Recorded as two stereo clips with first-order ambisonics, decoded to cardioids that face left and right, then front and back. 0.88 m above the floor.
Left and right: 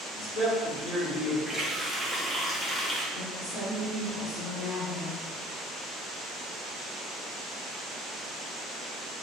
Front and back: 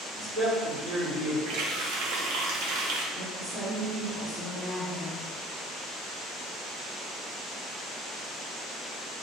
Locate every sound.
0.1 s a man speaking: 115° left, 1.7 m
1.5 s a running tap: 175° left, 0.7 m
3.1 s a woman speaking: 110° left, 1.5 m